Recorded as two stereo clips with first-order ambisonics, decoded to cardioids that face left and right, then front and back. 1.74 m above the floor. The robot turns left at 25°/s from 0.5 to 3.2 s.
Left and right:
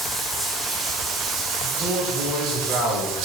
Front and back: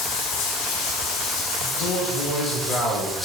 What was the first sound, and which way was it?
Running water, 10° right.